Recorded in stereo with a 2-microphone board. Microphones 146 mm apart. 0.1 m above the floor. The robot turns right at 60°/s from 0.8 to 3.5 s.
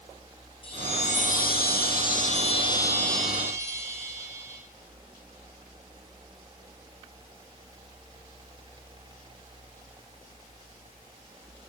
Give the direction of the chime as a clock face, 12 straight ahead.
11 o'clock.